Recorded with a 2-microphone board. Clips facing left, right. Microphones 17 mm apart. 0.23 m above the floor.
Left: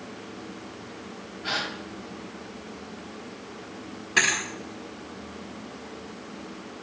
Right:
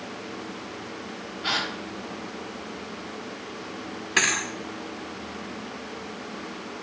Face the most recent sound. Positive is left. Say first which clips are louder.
# even
turn(degrees=-15)  # may be behind; listen again after turning